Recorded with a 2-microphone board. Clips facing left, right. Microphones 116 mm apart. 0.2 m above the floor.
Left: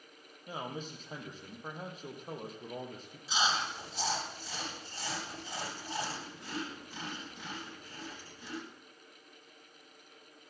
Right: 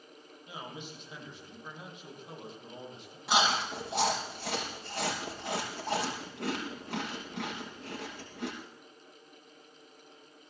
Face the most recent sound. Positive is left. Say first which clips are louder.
# right 5 dB
turn(degrees=-65)  # may be behind; listen again after turning